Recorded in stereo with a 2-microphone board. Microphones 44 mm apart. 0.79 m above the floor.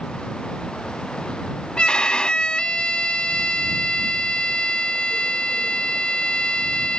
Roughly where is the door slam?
I don't hear a door slam.